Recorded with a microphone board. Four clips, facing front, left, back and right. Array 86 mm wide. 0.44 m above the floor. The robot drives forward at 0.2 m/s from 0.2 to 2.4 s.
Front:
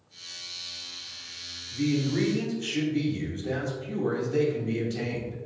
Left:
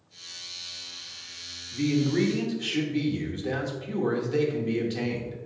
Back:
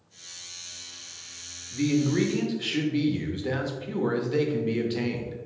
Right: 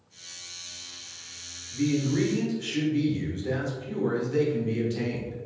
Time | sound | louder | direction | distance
1.7 | a man speaking | left 1 dB, back 2 dB | 155° left | 0.8 m